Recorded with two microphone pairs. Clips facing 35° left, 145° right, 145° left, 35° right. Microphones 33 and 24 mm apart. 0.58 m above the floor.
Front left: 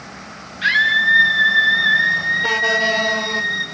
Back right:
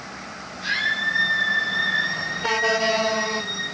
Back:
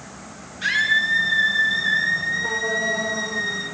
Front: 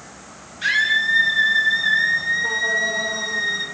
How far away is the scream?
About 7 m.